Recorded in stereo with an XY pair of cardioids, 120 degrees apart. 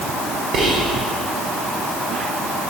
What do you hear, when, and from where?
0.5 s whispering: 65° right, 0.9 m